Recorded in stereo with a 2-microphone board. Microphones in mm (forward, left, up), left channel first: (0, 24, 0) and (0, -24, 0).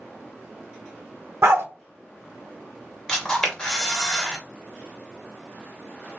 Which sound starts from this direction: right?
A dog barking, at 1.4 s.